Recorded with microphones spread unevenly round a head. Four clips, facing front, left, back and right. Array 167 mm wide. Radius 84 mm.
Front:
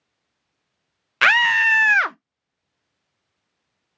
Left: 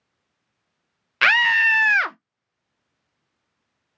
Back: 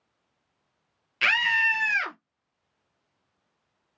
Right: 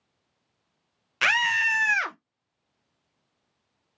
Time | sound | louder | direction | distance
1.2 | a scream | left 6 dB, front 8 dB | 15° left | 0.5 m